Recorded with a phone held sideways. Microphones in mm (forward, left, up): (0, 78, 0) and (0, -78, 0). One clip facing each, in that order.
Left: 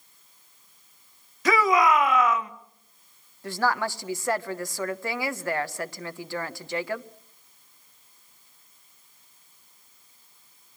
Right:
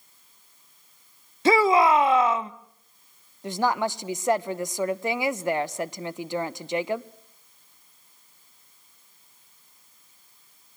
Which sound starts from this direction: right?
A shout, at 1.4 s.